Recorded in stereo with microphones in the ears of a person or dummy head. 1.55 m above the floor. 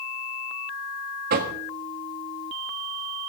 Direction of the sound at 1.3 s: 45° right (ahead or behind).